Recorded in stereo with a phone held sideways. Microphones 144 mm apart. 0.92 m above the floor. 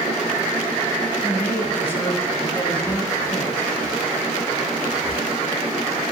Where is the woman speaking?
15° left (ahead or behind), 6.5 m.